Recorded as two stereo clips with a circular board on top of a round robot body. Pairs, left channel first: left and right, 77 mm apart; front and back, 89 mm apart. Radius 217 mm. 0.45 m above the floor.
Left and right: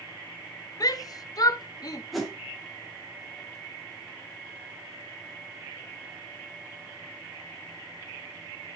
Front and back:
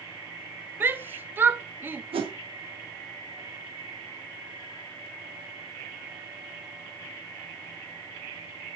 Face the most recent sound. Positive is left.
turn(degrees=180)